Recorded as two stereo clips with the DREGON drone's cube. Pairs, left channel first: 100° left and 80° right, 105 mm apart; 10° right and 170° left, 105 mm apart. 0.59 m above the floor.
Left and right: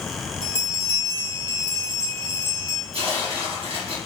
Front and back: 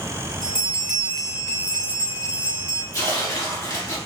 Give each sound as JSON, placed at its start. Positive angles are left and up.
{"t": 0.4, "sound": "a bell", "azimuth_deg": -110, "distance_m": 1.0}
{"t": 2.9, "sound": "tearing paper", "azimuth_deg": -65, "distance_m": 1.9}